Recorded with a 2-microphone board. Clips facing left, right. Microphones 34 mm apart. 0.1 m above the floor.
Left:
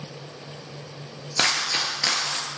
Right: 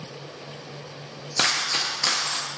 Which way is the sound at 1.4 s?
10° left (ahead or behind).